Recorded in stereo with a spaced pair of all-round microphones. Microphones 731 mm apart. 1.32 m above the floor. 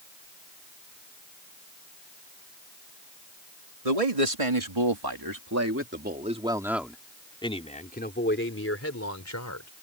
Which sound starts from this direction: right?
A man speaking, at 3.9 s.